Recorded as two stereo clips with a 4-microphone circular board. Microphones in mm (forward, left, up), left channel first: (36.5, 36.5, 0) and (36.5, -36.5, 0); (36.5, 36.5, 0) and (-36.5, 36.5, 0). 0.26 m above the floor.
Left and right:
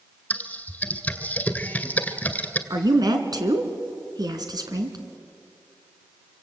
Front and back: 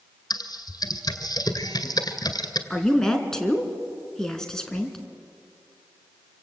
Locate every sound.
0.3 s typing on a keyboard: 20° left, 2 m
2.7 s a woman speaking: 80° right, 3 m